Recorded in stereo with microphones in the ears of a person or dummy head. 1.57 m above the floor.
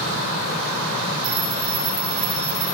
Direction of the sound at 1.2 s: 80° right.